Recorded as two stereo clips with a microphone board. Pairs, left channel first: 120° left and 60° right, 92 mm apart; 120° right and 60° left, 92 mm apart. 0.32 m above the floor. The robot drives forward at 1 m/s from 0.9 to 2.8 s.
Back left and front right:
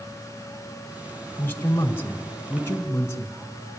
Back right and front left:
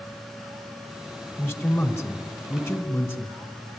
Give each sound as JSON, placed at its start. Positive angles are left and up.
{"t": 1.4, "sound": "a man speaking", "azimuth_deg": 180, "distance_m": 1.6}